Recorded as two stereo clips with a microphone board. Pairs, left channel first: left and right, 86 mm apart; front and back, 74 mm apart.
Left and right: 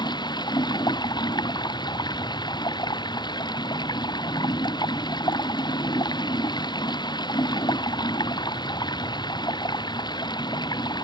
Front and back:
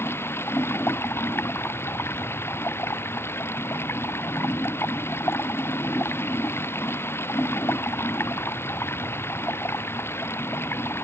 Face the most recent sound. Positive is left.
turn(degrees=60)